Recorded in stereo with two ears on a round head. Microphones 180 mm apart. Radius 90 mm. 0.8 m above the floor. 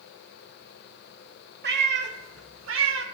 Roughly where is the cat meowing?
Right.